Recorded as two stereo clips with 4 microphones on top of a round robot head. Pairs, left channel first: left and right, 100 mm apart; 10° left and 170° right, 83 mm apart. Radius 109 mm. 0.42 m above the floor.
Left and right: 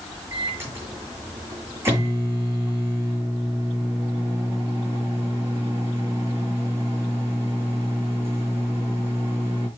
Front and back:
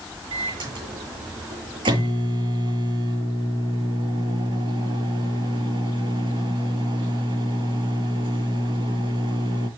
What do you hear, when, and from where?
0.3 s a microwave: 160° right, 9 m